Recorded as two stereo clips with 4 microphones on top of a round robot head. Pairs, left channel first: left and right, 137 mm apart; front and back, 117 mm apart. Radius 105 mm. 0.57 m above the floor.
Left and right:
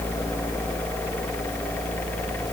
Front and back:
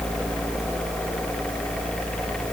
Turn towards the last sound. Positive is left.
No sound to turn to.